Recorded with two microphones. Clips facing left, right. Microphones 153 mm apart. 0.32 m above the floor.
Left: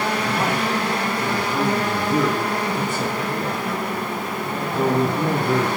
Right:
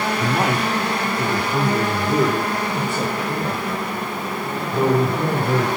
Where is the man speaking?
60° right (ahead or behind), 2.0 m; by 5.7 s 30° right (ahead or behind), 5.5 m.